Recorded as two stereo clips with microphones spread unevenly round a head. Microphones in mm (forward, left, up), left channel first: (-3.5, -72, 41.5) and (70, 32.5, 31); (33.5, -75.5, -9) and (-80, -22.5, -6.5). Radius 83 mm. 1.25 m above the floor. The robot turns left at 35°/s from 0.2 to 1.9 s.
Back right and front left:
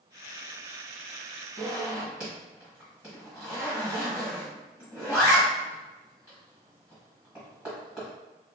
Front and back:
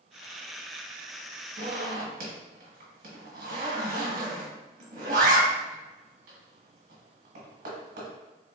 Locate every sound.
1.6 s a zipper: 150° left, 1.2 m; by 8.1 s 140° left, 1.2 m